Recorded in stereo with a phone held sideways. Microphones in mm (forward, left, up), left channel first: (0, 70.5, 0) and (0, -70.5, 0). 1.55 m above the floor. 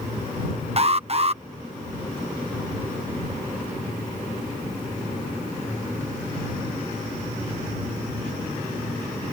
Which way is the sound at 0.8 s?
45° right (ahead or behind).